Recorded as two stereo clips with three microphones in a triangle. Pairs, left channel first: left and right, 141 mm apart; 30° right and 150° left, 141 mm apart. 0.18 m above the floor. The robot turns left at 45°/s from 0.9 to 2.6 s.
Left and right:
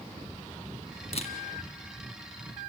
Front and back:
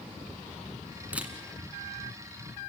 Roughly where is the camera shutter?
Left.